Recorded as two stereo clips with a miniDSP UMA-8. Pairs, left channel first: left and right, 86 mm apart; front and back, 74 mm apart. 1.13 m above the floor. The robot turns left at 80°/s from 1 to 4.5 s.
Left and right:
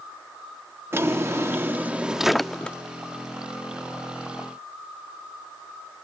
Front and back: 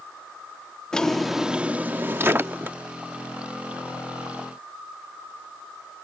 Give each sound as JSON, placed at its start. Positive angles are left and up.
{"t": 0.9, "sound": "a drawer", "azimuth_deg": -70}